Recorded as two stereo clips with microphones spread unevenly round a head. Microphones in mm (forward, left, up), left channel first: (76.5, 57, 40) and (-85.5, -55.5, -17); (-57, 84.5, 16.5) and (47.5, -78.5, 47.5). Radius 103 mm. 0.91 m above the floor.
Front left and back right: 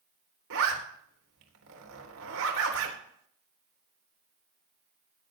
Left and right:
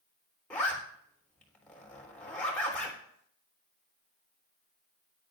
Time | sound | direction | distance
0.5 | a zipper | 155° right | 3.5 m